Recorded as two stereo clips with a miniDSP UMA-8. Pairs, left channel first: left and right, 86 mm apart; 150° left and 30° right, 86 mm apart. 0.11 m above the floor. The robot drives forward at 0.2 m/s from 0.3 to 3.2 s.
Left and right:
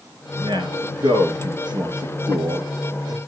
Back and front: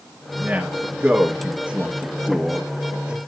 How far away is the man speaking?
About 4.5 m.